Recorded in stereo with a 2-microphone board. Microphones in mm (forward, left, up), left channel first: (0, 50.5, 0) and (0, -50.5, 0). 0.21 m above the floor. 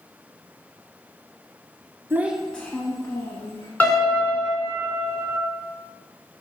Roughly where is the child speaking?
Right.